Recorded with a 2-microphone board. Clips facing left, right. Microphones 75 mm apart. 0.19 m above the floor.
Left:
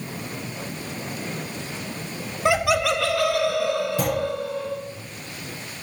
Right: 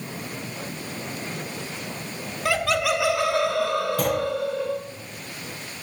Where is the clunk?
10° left (ahead or behind), 5 m.